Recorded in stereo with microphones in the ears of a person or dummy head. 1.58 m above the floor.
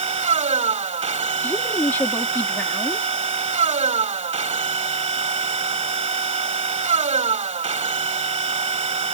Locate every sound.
0.0 s a machine running: 30° right (ahead or behind)
1.4 s a woman speaking: 10° left (ahead or behind)